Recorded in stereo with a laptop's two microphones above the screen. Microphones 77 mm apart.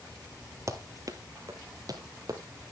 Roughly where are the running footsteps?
Right.